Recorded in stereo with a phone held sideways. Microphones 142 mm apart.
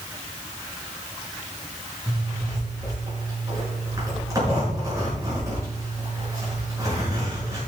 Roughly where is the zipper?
Right.